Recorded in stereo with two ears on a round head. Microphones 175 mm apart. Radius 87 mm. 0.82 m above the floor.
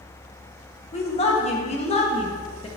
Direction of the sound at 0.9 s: 30° left (ahead or behind).